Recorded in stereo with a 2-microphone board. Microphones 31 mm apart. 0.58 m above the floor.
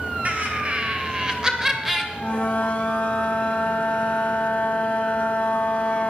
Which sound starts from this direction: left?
A flute, at 2.1 s.